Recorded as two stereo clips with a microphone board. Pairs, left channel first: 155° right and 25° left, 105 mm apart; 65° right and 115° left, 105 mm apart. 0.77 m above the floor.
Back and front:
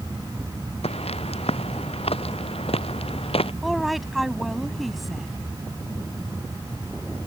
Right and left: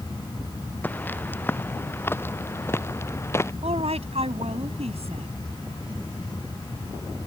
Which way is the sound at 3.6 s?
110° left.